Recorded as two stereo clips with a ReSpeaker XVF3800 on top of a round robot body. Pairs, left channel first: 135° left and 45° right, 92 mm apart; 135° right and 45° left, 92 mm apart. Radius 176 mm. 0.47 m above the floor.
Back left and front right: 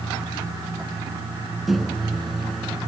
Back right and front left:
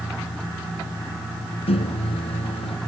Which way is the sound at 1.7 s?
135° right.